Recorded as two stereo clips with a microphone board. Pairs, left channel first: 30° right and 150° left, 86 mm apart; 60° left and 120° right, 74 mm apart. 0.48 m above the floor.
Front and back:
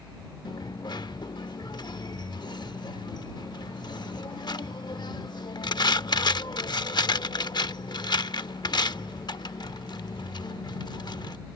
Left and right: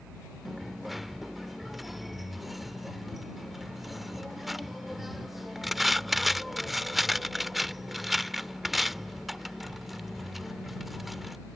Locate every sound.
0.5 s a dropped coin: 35° right